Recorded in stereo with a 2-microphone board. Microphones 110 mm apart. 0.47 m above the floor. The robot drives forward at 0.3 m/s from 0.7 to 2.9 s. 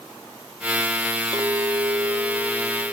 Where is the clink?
45° right (ahead or behind), 0.9 m; by 2.9 s 35° right (ahead or behind), 1.1 m.